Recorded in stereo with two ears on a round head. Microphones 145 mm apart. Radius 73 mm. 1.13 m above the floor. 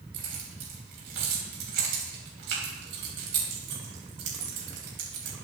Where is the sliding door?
No sliding door in this recording.